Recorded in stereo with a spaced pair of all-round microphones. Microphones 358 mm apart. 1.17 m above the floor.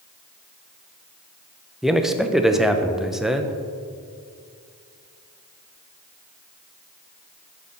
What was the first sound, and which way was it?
A man speaking, centre (ahead or behind).